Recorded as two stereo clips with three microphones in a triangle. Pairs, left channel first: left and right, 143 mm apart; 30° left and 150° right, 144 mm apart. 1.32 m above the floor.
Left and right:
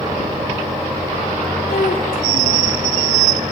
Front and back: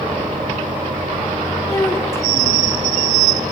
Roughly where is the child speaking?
Left.